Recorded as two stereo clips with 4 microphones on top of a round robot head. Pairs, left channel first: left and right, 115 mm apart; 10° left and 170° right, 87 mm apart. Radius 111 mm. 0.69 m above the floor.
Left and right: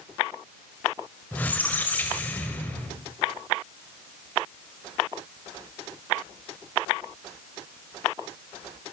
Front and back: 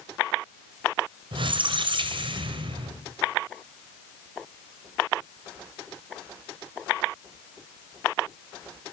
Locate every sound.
1.3 s a squeak: 165° left, 3 m